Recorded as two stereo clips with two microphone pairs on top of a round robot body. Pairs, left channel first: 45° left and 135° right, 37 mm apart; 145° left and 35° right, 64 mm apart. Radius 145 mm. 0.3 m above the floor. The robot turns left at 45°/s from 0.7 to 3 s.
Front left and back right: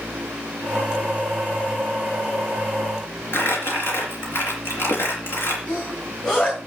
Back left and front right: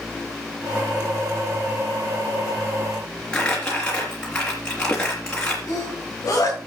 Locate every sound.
3.3 s crumpling: 65° left, 3.5 m
5.7 s a sneeze: 110° left, 8 m